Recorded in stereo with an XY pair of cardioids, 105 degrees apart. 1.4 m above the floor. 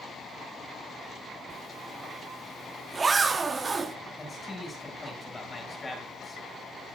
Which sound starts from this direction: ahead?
A man speaking, at 4.2 s.